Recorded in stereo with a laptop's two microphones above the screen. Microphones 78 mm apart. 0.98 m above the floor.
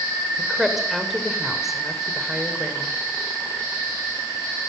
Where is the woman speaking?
5° right (ahead or behind), 3 m.